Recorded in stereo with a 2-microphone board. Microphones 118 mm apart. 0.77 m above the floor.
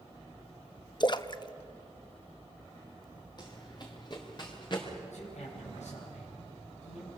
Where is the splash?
40° left (ahead or behind), 0.7 m.